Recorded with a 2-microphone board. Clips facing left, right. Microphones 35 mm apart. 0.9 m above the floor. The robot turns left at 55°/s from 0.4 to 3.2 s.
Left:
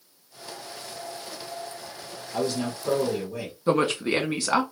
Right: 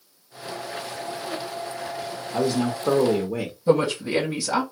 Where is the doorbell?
I don't hear a doorbell.